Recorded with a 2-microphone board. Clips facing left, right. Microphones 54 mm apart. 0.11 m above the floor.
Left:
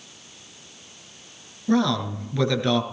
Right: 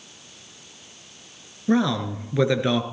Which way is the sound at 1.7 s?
20° right (ahead or behind).